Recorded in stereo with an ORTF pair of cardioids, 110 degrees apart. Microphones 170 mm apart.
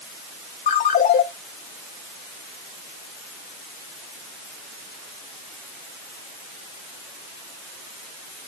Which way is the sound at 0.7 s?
50° left.